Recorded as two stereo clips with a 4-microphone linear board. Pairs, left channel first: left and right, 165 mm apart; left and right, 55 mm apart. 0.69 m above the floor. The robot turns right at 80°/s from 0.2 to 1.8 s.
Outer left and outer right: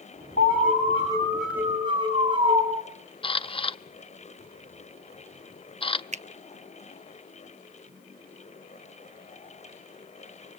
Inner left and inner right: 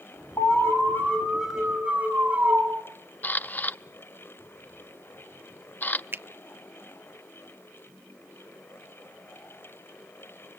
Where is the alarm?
95° left, 6 m; by 2.6 s 150° right, 6 m.